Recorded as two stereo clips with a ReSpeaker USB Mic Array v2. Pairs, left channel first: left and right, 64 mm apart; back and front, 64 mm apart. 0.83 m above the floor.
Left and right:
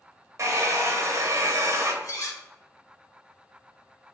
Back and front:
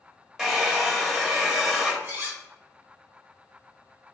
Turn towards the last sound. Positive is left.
turn(degrees=60)